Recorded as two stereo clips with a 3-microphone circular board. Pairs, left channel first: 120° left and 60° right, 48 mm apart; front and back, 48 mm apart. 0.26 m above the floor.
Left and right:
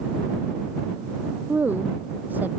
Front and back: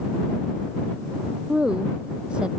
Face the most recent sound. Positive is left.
turn(degrees=-110)